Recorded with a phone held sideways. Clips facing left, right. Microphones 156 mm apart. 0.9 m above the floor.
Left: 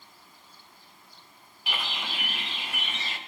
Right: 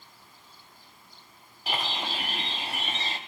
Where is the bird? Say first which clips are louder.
Right 4 dB; 40° right (ahead or behind), 0.9 m.